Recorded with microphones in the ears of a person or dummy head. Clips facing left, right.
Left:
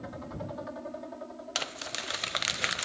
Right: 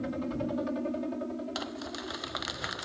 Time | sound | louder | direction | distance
0.0 | a helicopter | right 8 dB | 35° right (ahead or behind) | ?
1.6 | crumpling | right 3 dB | 35° left (ahead or behind) | ?